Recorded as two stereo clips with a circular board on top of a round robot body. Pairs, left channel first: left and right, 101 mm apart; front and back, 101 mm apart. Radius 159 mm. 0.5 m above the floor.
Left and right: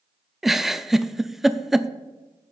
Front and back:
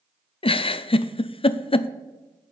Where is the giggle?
5° right, 0.6 m.